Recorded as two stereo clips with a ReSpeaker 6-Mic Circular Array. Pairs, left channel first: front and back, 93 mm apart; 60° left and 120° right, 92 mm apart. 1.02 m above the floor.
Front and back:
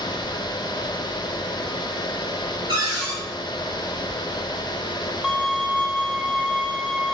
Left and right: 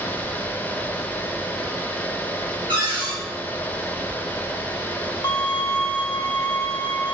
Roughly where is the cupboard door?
Behind right.